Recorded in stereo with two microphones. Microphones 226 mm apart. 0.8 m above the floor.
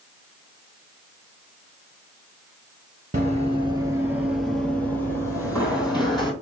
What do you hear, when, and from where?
3.1 s running footsteps: 35° right (ahead or behind), 0.9 m; by 6.3 s 20° left (ahead or behind), 1.9 m